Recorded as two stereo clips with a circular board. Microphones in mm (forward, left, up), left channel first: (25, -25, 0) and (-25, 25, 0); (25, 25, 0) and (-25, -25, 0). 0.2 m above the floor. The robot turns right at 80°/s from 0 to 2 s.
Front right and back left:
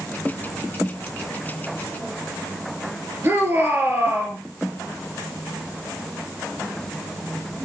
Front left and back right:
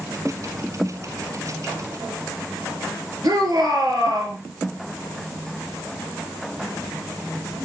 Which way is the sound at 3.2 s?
165° right.